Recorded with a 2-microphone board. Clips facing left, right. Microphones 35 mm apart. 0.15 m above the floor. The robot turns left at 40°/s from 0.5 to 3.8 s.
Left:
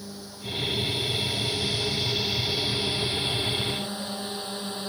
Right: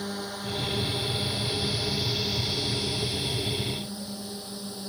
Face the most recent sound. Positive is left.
turn(degrees=50)  # may be behind; listen again after turning